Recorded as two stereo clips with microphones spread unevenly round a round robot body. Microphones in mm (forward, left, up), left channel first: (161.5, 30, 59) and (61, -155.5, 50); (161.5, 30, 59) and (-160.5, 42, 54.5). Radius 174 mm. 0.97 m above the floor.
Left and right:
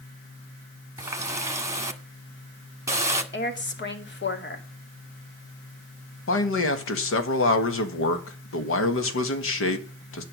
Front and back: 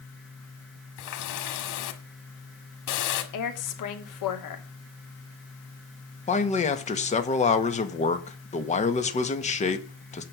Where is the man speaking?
65° left, 1.8 m.